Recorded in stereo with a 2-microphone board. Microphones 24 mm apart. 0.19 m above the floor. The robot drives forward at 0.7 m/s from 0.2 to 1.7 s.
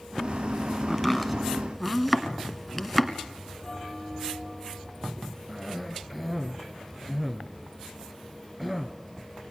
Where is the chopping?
5° left (ahead or behind), 1.6 m.